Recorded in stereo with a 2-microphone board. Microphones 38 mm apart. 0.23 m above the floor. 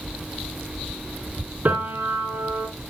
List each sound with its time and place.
1.6 s a piano: 45° right (ahead or behind), 2.5 m